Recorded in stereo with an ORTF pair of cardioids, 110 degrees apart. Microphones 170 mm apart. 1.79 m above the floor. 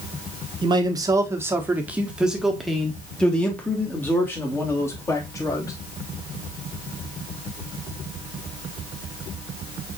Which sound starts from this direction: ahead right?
A man speaking, at 0.6 s.